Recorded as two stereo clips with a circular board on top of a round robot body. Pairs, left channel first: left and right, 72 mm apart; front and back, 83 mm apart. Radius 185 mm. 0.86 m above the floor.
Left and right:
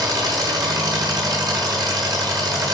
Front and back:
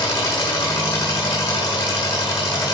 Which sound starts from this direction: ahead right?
An engine running, at 0.0 s.